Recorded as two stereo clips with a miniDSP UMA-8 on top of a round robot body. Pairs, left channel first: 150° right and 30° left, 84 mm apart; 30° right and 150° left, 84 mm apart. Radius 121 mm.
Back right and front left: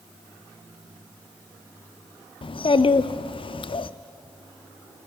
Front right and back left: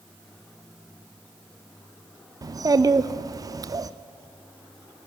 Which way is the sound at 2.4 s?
160° right.